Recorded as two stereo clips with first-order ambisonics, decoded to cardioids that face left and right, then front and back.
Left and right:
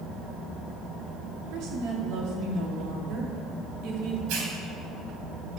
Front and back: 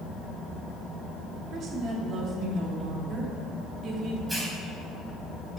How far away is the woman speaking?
About 3.5 m.